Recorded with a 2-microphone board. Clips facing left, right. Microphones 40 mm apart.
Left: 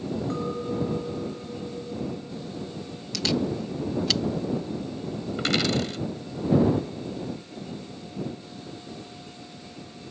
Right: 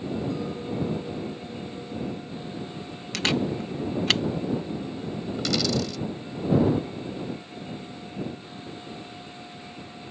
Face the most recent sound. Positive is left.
turn(degrees=45)  # may be behind; listen again after turning